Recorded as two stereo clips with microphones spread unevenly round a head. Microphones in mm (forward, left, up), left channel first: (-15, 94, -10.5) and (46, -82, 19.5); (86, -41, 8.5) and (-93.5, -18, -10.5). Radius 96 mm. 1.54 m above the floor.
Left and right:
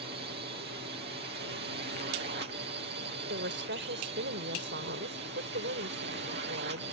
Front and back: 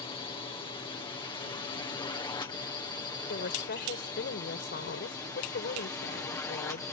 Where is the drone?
65° right; by 6.9 s 80° right.